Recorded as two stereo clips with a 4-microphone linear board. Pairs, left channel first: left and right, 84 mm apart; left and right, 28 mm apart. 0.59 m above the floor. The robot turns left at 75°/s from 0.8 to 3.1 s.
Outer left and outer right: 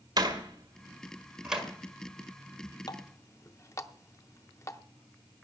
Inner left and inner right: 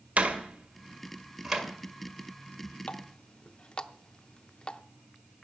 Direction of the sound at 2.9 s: 50° left (ahead or behind).